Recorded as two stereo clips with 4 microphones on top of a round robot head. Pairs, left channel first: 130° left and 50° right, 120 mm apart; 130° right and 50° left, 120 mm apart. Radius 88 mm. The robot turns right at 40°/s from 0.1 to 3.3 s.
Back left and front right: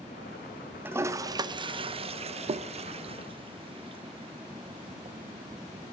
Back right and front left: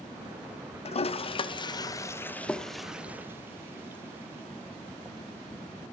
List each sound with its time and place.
0.8 s a toilet flushing: 120° right, 0.7 m; by 5.2 s 20° right, 0.7 m